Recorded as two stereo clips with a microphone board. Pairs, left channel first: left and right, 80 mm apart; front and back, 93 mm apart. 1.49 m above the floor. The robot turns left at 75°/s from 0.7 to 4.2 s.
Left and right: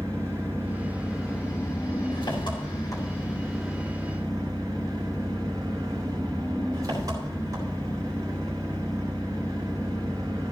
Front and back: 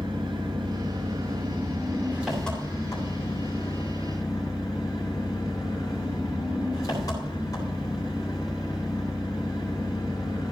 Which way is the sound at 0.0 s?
145° right.